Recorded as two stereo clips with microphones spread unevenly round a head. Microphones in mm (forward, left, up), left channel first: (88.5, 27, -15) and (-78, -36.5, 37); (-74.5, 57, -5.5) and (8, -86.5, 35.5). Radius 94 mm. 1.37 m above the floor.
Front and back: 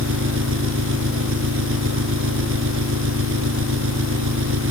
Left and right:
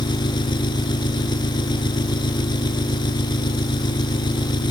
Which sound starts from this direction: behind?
An engine running, at 0.0 s.